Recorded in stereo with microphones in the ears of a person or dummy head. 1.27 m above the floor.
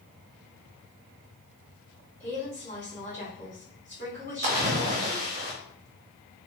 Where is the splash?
40° right (ahead or behind), 0.7 m.